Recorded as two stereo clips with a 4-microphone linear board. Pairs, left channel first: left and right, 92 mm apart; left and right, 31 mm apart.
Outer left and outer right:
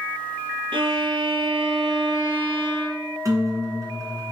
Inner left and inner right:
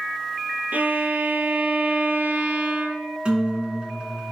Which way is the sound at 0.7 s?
80° right.